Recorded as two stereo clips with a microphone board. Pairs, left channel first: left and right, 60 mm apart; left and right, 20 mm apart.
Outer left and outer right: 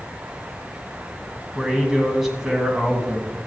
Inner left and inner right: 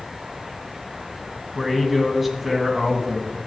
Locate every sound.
1.6 s a man speaking: 5° right (ahead or behind), 1.7 m